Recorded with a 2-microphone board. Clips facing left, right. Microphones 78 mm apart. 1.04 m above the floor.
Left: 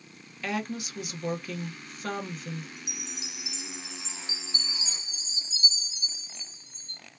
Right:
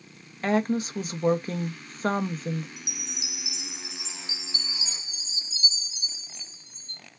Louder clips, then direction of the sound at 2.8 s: Right 1 dB; 35° left (ahead or behind).